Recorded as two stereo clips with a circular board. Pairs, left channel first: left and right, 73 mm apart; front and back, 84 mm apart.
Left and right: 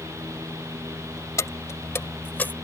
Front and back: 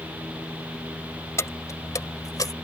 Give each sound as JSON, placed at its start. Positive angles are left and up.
{"t": 1.4, "sound": "keys jangling", "azimuth_deg": 50}